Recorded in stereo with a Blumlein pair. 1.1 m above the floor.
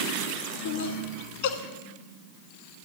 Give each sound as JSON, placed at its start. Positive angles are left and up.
{"t": 0.7, "sound": "laughter", "azimuth_deg": 50, "distance_m": 1.2}